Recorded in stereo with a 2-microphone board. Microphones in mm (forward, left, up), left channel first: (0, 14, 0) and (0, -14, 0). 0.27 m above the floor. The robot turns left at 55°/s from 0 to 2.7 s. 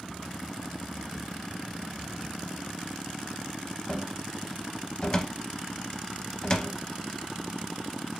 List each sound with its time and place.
3.9 s a cupboard door: 25° left (ahead or behind), 0.6 m